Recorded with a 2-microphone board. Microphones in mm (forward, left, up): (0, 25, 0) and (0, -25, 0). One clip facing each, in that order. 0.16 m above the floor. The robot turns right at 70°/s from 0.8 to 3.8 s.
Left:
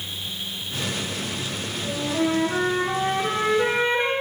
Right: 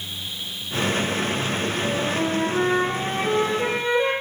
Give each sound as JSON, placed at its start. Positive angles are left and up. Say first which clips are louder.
{"t": 1.8, "sound": "a flute", "louder": "left 3 dB", "azimuth_deg": 0, "distance_m": 1.8}